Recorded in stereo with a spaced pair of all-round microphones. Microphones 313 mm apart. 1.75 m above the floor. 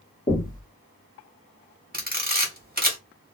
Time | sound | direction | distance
0.3 | knocking | 25° left (ahead or behind) | 1.1 m
1.9 | a camera shutter | 30° right (ahead or behind) | 0.9 m